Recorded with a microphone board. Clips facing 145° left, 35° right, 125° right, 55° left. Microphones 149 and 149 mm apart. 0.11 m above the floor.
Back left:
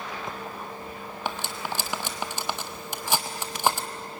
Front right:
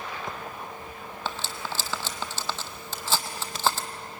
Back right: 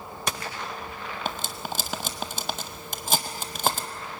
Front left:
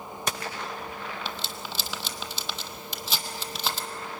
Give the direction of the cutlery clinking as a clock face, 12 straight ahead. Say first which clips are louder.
Back left 2 dB, back right 4 dB; 5 o'clock.